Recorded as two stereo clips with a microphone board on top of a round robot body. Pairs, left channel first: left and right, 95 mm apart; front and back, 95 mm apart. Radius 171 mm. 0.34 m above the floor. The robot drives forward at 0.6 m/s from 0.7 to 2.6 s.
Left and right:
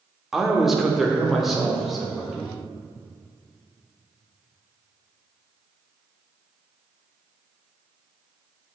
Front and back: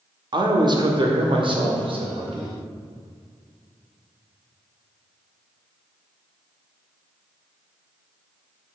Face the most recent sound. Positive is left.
turn(degrees=180)